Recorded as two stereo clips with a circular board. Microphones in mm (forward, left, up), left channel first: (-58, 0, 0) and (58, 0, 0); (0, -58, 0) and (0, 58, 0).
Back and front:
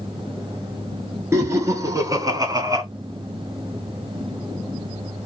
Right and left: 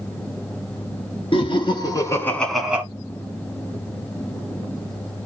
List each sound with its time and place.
1.3 s laughter: 60° right, 2 m; by 2.8 s 30° left, 1.3 m